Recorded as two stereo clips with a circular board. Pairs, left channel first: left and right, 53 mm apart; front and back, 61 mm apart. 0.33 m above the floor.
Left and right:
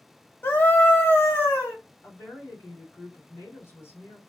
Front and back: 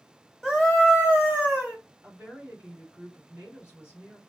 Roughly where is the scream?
Left.